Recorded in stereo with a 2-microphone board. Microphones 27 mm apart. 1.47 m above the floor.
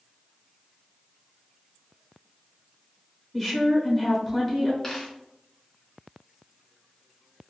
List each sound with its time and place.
3.3 s a woman speaking: 10° left (ahead or behind), 0.8 m
4.8 s a dropped coin: 20° left (ahead or behind), 1.0 m